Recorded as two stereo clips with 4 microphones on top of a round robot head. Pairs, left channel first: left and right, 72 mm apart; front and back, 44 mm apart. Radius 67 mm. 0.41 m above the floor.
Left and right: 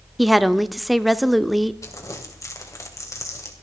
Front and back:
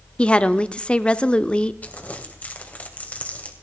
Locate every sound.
0.2 s a woman speaking: straight ahead, 0.8 m
1.8 s crumpling: 50° left, 2.5 m